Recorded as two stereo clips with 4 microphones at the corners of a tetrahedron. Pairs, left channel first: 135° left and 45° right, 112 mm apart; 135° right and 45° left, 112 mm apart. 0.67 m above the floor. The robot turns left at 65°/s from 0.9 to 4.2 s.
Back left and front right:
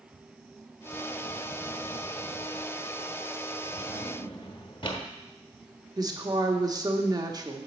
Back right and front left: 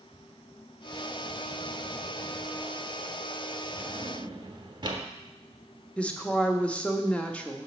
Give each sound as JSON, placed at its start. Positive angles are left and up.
{"t": 3.8, "sound": "a drawer", "azimuth_deg": 120, "distance_m": 1.0}
{"t": 6.0, "sound": "a woman speaking", "azimuth_deg": -65, "distance_m": 0.9}